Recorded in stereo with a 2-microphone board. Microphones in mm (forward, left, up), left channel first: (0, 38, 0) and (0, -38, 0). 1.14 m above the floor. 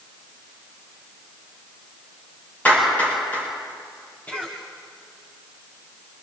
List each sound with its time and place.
2.6 s a clap: 20° left (ahead or behind), 8 m
4.3 s a cough: 25° left (ahead or behind), 3.5 m